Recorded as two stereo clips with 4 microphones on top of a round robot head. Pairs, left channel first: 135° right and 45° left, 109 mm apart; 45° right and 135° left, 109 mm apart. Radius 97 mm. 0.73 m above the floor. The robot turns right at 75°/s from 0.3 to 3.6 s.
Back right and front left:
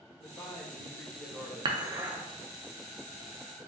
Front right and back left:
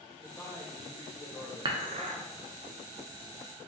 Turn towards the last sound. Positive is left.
turn(degrees=-125)